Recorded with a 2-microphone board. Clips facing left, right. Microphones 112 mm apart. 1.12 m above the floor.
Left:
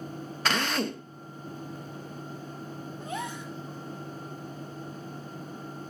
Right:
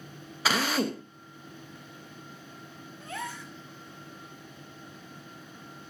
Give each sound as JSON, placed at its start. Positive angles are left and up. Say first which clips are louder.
{"t": 0.5, "sound": "a drill", "louder": "right 1 dB", "side_deg": -5, "distance_m": 1.2}
{"t": 3.0, "sound": "a gasp", "louder": "left 2 dB", "side_deg": 20, "distance_m": 1.7}